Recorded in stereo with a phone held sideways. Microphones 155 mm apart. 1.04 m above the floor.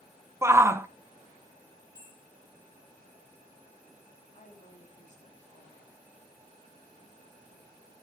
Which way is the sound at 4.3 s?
50° left (ahead or behind).